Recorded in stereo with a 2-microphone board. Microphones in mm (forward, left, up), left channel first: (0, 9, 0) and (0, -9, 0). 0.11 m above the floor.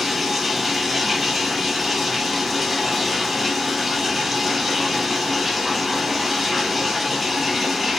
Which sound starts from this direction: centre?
Running water, at 0.0 s.